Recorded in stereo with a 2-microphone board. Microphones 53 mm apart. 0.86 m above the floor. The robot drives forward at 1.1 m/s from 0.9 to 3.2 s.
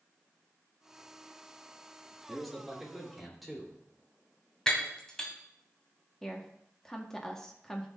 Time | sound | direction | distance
2.3 | a man speaking | centre (ahead or behind) | 2.5 m
4.7 | breaking glass | 15° left (ahead or behind) | 2 m
6.2 | a woman speaking | 10° left (ahead or behind) | 1.4 m